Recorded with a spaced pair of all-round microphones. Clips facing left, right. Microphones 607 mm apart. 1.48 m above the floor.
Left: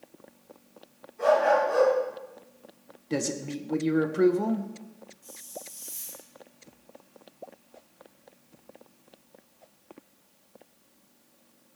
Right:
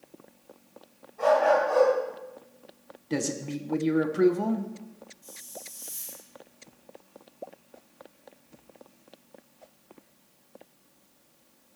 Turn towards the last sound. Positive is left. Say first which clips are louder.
# left 5 dB
turn(degrees=-75)  # may be behind; listen again after turning